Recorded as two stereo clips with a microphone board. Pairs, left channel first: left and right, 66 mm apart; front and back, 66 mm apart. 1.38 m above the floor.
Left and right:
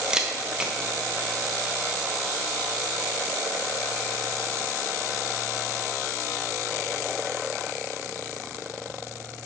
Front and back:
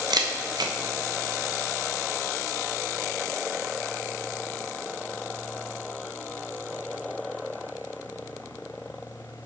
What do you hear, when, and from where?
0.1 s a camera shutter: 170° right, 1.1 m